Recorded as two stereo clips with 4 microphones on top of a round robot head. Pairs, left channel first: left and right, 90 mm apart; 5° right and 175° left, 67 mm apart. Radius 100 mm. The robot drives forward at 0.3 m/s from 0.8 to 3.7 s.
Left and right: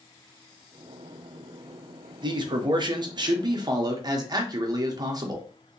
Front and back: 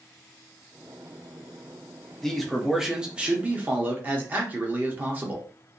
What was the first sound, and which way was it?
A man speaking, 85° right.